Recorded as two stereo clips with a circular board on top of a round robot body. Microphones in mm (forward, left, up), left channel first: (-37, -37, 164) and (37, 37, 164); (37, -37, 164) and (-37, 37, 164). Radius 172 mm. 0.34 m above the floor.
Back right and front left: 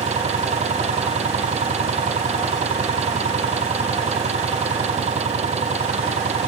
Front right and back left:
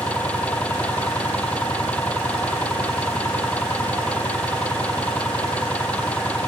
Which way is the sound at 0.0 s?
35° left.